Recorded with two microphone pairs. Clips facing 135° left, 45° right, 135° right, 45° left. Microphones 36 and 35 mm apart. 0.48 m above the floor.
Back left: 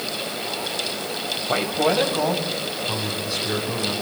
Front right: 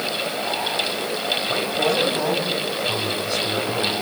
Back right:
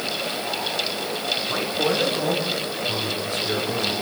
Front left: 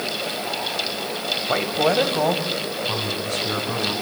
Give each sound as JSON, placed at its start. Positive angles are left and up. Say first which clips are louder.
{"t": 1.5, "sound": "a man speaking", "louder": "back left 3 dB, front left 5 dB", "azimuth_deg": 70, "distance_m": 3.0}